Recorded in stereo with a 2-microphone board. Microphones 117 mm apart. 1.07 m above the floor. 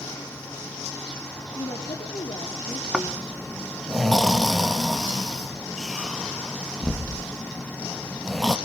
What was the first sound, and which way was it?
A woman speaking, 55° left (ahead or behind).